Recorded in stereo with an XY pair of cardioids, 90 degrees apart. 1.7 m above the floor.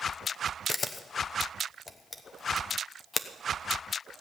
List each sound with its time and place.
0.7 s a camera shutter: 35° left, 1.0 m